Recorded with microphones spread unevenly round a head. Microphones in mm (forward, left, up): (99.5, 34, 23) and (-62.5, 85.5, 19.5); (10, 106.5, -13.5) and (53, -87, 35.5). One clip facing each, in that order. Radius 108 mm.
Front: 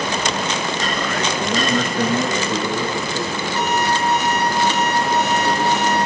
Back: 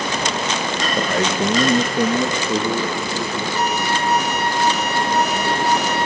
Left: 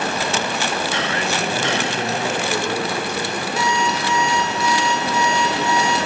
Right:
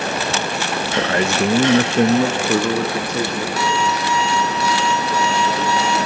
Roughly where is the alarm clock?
Behind.